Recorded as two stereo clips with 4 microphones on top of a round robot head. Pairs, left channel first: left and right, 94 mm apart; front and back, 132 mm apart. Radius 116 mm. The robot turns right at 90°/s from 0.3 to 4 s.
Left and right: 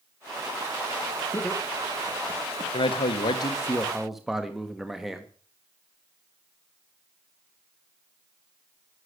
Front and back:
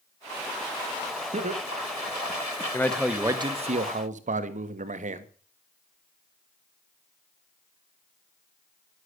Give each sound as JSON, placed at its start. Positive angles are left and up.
{"t": 1.3, "sound": "laughter", "azimuth_deg": 155, "distance_m": 2.5}
{"t": 2.7, "sound": "a man speaking", "azimuth_deg": 70, "distance_m": 1.7}